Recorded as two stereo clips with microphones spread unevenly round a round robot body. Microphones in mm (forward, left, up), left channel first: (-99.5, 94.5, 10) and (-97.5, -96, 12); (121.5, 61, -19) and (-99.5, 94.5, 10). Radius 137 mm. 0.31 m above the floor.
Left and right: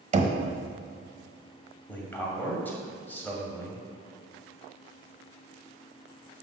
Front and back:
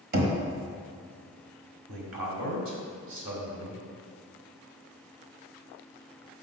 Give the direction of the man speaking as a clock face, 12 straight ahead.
6 o'clock.